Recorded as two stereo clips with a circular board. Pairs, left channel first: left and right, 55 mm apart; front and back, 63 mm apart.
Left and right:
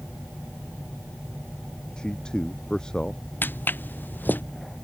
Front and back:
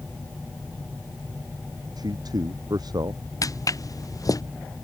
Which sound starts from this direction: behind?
A man speaking, at 2.0 s.